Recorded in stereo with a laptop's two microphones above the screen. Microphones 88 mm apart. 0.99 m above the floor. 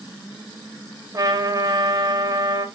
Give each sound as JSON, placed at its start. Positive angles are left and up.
{"t": 1.1, "sound": "a trumpet", "side_deg": -50, "distance_m": 4.5}